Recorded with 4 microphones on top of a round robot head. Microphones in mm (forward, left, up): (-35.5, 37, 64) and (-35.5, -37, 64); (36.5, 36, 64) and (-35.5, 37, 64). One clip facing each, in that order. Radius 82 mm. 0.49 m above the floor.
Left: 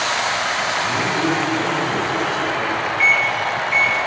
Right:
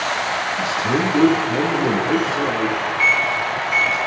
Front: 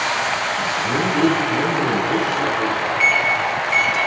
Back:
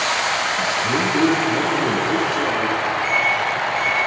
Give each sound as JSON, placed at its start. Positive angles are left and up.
{"t": 0.6, "sound": "a man speaking", "azimuth_deg": -105, "distance_m": 9.0}
{"t": 3.0, "sound": "a microwave", "azimuth_deg": -10, "distance_m": 3.0}